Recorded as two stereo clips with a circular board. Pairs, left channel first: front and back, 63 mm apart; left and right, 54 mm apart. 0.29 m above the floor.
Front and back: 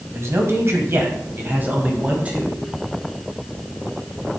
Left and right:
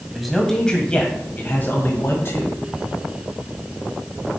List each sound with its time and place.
0.1 s a man speaking: 175° right, 1.7 m; by 2.5 s 110° left, 2 m